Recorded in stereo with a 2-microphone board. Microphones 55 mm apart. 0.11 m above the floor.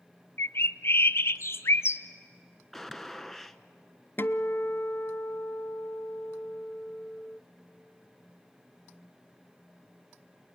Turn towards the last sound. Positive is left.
turn(degrees=40)  # may be behind; listen again after turning